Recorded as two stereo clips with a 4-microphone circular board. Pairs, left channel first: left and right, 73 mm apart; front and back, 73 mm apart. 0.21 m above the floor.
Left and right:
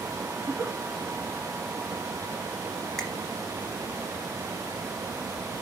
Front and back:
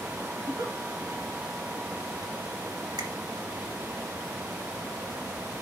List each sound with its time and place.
0.4 s a giggle: 155° right, 3.5 m
3.0 s a finger snap: 175° left, 1.8 m